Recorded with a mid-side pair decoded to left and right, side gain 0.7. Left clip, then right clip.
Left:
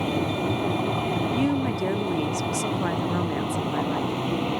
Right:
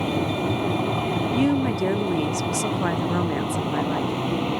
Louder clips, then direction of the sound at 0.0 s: Right 1 dB; 5° right.